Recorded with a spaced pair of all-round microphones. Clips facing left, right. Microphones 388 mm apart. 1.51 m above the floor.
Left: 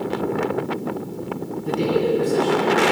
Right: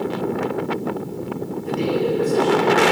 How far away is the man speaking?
About 1.4 m.